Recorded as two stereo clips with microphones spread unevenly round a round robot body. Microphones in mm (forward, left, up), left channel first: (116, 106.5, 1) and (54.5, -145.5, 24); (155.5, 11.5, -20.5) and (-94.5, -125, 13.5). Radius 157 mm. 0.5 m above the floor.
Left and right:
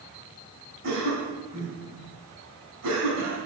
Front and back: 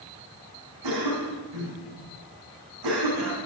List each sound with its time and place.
0.8 s a cough: 155° right, 4.5 m